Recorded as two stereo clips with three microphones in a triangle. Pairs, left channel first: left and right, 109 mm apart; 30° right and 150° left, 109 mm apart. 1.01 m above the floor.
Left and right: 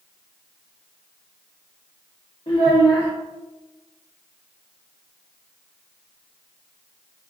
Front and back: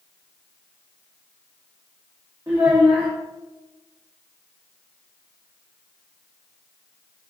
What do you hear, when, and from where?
2.5 s a child speaking: 95° left, 0.7 m